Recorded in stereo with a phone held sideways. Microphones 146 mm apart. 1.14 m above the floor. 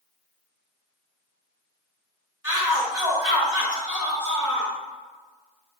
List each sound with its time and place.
2.4 s a shout: 15° right (ahead or behind), 1.7 m; by 4.7 s 20° left (ahead or behind), 3 m